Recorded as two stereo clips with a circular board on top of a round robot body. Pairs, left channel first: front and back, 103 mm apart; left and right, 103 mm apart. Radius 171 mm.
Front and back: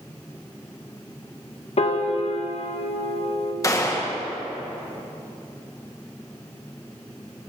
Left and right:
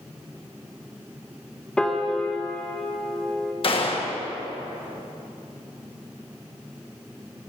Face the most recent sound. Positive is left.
turn(degrees=60)